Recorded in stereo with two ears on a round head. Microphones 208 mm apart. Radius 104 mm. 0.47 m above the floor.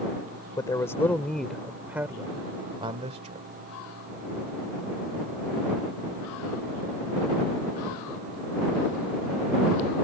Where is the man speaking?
15° left (ahead or behind); by 3.5 s 35° right (ahead or behind).